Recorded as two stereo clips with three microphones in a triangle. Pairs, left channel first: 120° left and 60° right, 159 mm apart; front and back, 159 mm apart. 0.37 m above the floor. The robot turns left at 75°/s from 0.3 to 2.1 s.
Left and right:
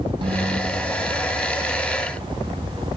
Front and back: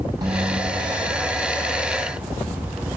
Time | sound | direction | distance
0.2 | a guitar | 120° right | 1.5 m